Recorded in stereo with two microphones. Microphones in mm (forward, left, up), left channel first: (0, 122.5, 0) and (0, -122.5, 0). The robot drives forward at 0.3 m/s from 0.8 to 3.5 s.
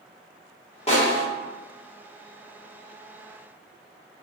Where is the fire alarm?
I don't hear a fire alarm.